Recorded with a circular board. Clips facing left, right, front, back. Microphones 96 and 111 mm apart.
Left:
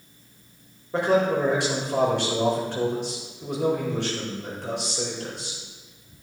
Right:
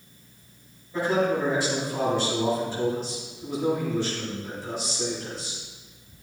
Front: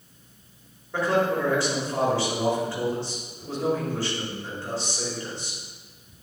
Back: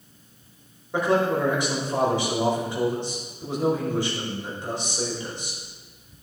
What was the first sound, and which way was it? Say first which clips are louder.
A man speaking: left 3 dB, back 1 dB; 110° left.